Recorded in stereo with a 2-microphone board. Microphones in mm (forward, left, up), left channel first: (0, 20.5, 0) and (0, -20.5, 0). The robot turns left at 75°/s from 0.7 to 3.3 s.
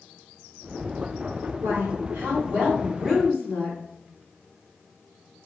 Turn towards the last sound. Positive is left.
turn(degrees=160)